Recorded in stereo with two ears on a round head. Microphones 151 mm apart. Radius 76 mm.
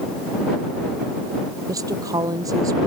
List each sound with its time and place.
1.7 s a woman speaking: 20° right (ahead or behind)